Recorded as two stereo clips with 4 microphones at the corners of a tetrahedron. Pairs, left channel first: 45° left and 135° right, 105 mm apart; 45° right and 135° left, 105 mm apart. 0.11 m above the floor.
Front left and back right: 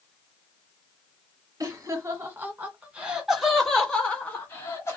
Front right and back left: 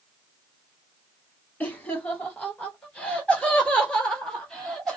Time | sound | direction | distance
1.6 | laughter | 105° right | 1.9 m